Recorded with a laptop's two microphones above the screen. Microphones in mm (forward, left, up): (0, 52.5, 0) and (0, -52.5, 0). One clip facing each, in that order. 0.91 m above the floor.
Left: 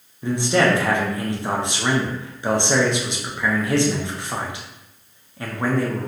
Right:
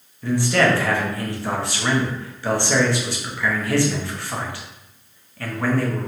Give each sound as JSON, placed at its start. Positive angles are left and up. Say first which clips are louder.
{"t": 0.2, "sound": "a man speaking", "louder": "even", "side_deg": 20, "distance_m": 0.5}